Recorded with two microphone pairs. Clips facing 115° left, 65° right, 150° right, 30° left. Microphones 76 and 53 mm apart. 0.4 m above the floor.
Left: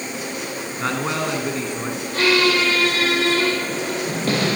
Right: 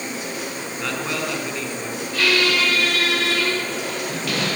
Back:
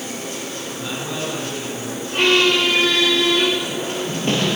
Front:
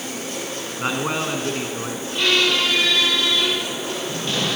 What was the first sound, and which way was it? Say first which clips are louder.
A man speaking: left 3 dB, front 5 dB; 60° left.